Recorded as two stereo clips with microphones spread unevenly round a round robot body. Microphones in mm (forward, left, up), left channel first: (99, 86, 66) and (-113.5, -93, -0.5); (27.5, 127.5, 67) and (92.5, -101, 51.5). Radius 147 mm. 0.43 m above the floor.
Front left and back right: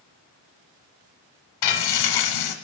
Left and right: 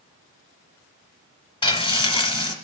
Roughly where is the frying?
Ahead left.